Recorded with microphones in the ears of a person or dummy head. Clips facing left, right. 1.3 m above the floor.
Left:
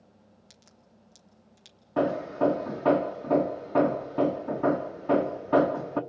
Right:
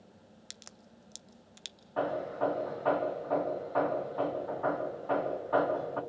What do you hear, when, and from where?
0.5 s a crack: 80° right, 0.7 m
2.0 s hammering: 35° left (ahead or behind), 1.1 m